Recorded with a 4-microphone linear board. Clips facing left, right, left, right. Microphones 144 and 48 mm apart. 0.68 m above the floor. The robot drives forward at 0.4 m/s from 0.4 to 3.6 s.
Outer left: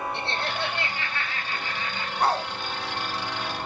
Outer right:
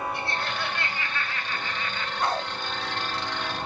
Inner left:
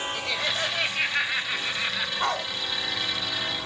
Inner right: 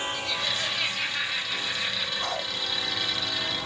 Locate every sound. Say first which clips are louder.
0.1 s laughter: outer left 1 dB, inner left 2 dB; 25° left (ahead or behind), 4 m; by 2.1 s 20° left (ahead or behind), 4.5 m
2.2 s a dog barking: outer left 3 dB, inner left 7 dB; 35° left (ahead or behind), 2 m